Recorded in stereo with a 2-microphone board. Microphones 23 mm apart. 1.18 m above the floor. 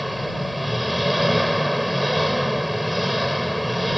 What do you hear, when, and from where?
0.0 s an engine running: 5° right (ahead or behind)